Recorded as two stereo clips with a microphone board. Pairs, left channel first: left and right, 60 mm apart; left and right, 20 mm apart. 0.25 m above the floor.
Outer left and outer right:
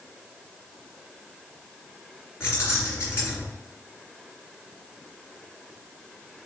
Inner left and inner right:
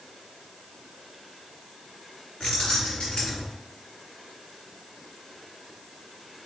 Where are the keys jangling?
50° left (ahead or behind), 2.5 m.